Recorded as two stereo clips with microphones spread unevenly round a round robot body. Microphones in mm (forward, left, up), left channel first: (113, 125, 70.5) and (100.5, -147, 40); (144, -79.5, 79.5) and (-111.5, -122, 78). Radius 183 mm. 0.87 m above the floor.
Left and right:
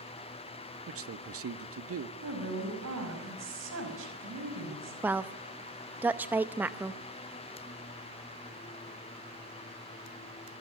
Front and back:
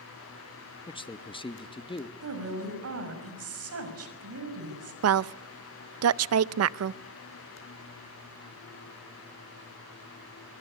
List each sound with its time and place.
0.9 s a man speaking: 60° right, 1.4 m
2.2 s a woman speaking: 145° right, 5.5 m
5.0 s a woman speaking: 170° right, 0.6 m